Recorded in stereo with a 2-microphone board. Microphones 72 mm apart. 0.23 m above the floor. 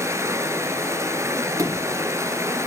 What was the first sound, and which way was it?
Running water, 40° right (ahead or behind).